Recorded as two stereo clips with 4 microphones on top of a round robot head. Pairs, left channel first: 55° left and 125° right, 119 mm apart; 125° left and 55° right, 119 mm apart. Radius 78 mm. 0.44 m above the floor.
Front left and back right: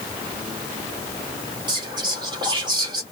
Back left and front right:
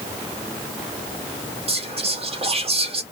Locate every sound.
1.7 s whispering: 75° right, 1.3 m